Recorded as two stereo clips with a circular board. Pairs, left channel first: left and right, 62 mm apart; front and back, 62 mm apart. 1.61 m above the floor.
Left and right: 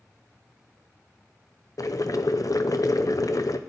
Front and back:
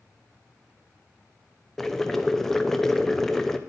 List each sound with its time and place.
1.8 s boiling: 85° left, 0.6 m